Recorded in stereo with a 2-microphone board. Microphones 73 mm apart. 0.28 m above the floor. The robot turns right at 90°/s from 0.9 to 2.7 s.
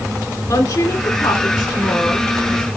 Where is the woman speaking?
60° left, 3 m; by 2.6 s 140° right, 3 m.